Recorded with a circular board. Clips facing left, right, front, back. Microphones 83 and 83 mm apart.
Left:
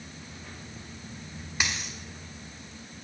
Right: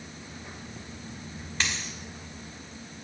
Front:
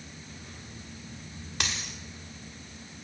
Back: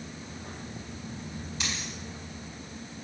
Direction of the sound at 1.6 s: 10° left.